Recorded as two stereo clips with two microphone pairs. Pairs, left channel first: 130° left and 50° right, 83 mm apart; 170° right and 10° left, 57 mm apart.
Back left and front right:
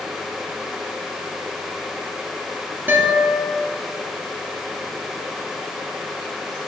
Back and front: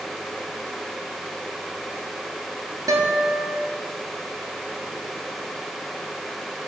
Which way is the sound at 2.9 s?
15° left.